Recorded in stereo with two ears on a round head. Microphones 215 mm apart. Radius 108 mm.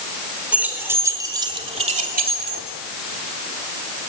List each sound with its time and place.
0.5 s keys jangling: 5° right (ahead or behind), 4.5 m; by 2.6 s 50° right (ahead or behind), 2.5 m